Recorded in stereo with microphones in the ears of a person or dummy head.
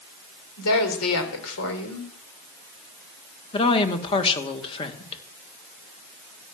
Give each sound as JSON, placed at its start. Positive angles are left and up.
{"t": 0.6, "sound": "a woman speaking", "side_deg": 85, "distance_m": 4.0}
{"t": 3.5, "sound": "a woman speaking", "side_deg": 30, "distance_m": 1.8}